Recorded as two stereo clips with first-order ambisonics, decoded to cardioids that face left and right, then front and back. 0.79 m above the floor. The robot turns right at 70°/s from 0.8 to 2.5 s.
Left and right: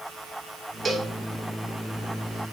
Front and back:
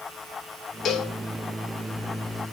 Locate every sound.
0.8 s a cowbell: 30° right, 0.5 m; by 1.1 s 15° right, 0.5 m